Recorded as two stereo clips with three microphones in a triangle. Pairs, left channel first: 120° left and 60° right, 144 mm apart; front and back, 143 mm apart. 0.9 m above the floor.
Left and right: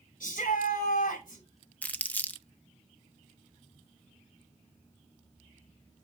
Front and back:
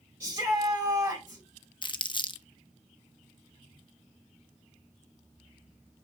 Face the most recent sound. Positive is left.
turn(degrees=45)